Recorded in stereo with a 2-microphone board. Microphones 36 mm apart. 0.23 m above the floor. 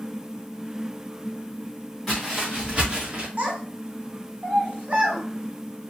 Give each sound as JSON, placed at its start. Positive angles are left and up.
{"t": 2.1, "sound": "footsteps", "side_deg": 0, "distance_m": 1.4}
{"t": 3.4, "sound": "a child speaking", "side_deg": -40, "distance_m": 1.2}